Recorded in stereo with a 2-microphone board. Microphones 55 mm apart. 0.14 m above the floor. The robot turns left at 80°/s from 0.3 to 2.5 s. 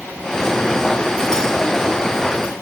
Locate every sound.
Only background noise.